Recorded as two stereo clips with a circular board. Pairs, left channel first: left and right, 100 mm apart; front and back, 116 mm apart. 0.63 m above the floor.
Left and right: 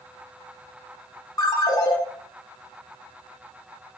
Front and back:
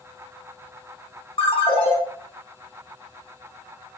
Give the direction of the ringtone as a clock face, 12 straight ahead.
11 o'clock.